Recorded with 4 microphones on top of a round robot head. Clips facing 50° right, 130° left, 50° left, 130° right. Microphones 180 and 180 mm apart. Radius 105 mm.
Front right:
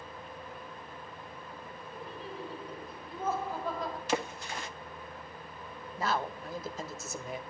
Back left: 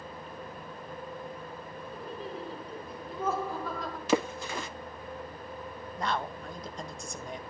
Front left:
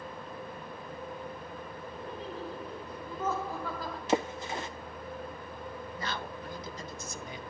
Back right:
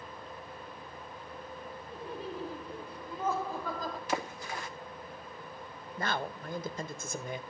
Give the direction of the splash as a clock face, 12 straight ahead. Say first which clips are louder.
Back left 8 dB, front left 9 dB; 8 o'clock.